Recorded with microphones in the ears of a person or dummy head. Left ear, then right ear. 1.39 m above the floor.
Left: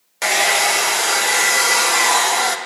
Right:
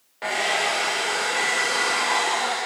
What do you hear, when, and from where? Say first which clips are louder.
0.2 s a hair dryer: left 7 dB; 75° left (ahead or behind), 1.0 m